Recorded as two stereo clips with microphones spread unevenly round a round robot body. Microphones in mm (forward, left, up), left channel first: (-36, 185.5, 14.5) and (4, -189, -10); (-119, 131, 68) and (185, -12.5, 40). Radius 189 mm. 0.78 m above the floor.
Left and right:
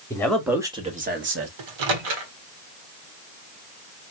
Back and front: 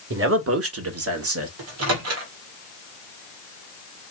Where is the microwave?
75° right, 1.6 m.